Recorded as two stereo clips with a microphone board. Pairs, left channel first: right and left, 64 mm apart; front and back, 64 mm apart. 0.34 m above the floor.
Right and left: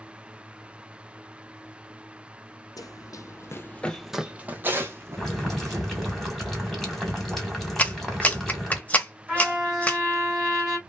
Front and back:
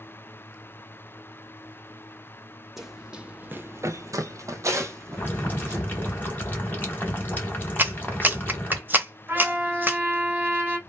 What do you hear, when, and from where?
2.8 s running footsteps: 95° right, 0.8 m; by 6.2 s 130° left, 1.6 m
5.2 s boiling: 5° right, 1.5 m
7.8 s a clap: 140° right, 0.7 m
9.3 s a trumpet: 160° left, 1.3 m